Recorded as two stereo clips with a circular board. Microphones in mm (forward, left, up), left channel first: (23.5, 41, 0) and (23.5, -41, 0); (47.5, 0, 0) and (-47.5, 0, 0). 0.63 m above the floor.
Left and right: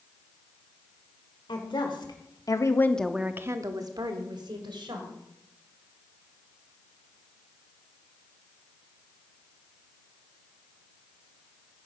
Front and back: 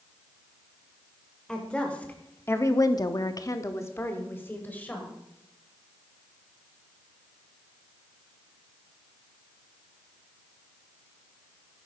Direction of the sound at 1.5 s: 80° left.